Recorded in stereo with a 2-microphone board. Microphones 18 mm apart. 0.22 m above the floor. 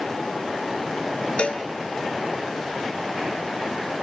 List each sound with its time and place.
1.4 s a cowbell: 75° left (ahead or behind), 1.3 m